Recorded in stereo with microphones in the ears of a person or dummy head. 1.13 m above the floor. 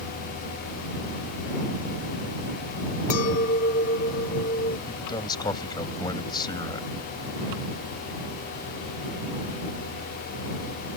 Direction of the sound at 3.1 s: 40° left (ahead or behind).